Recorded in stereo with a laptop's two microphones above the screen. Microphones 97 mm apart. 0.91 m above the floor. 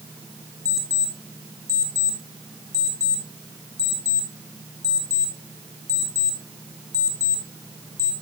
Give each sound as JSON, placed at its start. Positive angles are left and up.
{"t": 0.7, "sound": "an alarm clock", "side_deg": -35, "distance_m": 2.5}